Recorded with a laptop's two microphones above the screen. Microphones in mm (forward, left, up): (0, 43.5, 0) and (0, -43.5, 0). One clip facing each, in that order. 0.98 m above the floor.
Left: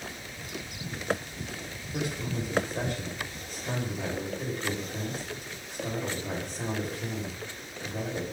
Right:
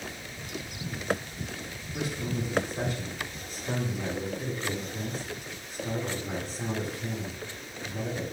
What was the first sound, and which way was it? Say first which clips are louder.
A man speaking: even; 55° left (ahead or behind).